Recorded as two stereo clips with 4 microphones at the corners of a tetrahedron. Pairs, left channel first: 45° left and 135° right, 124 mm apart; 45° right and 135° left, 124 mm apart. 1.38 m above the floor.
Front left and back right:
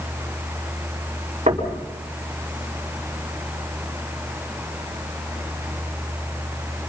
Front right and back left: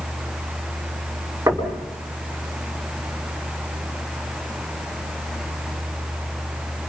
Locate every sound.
1.5 s knocking: 160° right, 3.5 m